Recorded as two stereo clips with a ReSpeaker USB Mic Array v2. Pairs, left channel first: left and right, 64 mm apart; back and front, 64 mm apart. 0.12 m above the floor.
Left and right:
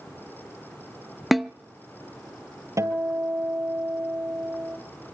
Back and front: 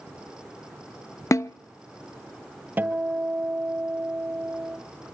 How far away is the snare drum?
About 0.6 m.